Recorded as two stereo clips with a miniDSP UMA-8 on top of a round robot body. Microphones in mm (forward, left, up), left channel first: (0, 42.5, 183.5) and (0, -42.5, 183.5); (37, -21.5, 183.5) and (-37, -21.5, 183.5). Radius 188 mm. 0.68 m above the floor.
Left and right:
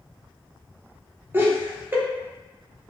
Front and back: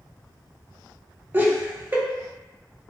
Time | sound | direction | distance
1.3 | laughter | 140° right | 1.0 m